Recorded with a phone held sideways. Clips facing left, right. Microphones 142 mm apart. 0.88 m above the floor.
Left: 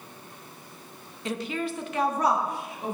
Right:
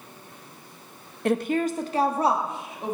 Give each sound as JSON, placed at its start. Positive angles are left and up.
{"t": 1.2, "sound": "a woman speaking", "side_deg": -55, "distance_m": 0.5}